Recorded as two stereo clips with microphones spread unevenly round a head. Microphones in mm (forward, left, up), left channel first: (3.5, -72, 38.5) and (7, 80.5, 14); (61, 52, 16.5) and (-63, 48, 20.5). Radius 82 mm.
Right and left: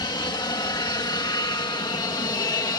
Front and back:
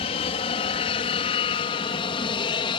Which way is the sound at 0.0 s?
30° right.